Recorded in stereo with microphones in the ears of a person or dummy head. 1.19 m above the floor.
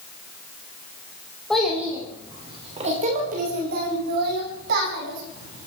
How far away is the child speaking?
About 3 m.